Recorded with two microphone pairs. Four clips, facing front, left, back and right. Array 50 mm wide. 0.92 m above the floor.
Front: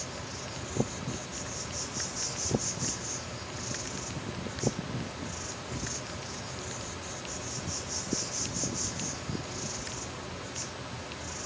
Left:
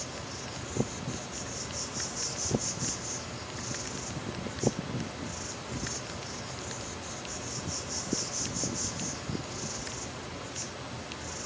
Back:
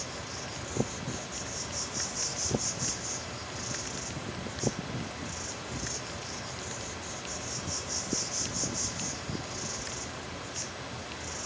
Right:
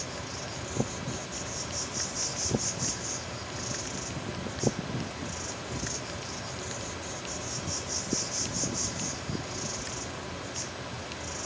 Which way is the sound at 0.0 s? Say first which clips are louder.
Right 2 dB, even; 105° right.